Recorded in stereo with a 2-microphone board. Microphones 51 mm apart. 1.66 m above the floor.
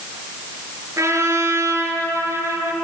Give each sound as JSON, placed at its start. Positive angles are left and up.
{"t": 1.0, "sound": "a trumpet", "side_deg": -80, "distance_m": 8.5}